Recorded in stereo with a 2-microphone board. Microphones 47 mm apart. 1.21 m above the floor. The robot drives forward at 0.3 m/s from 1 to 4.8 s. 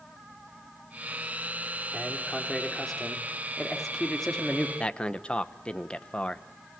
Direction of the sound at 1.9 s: 5° left (ahead or behind).